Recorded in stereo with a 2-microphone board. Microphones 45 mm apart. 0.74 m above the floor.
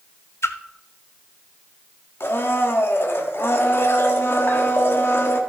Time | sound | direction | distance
0.4 | a splash | 70° left (ahead or behind) | 0.8 m
2.2 | a blender | 60° left (ahead or behind) | 1.4 m